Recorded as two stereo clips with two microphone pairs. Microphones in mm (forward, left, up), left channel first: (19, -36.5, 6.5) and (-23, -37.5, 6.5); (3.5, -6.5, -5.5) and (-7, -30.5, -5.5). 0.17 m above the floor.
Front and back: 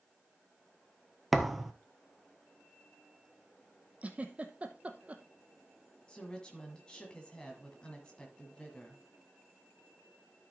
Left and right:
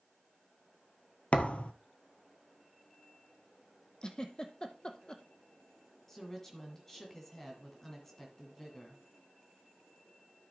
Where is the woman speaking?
20° left, 1.6 m.